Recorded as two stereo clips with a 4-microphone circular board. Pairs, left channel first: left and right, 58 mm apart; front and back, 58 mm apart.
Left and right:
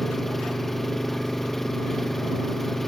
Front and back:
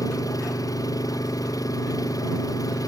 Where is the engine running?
5° left.